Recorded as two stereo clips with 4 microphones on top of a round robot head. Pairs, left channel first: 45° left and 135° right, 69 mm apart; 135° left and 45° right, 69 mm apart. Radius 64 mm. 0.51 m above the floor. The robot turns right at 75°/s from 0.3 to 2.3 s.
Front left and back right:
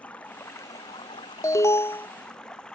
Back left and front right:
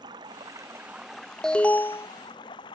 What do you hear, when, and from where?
0.0 s running water: 25° right; by 2.8 s 125° left
1.4 s an alarm: 55° left; by 2.1 s 100° left